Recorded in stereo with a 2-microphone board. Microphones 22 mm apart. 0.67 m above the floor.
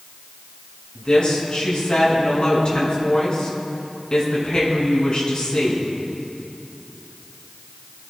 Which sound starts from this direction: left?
A woman speaking, at 0.9 s.